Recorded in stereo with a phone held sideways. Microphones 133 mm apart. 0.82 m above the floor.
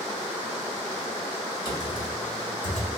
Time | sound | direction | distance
1.6 | typing on a keyboard | 30° right (ahead or behind) | 2.5 m